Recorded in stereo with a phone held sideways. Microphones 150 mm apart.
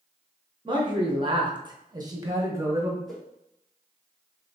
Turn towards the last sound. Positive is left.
turn(degrees=5)  # may be behind; listen again after turning